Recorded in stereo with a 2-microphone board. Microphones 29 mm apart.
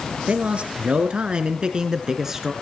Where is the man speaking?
45° right (ahead or behind), 2.0 m; by 2.5 s 10° right (ahead or behind), 1.7 m.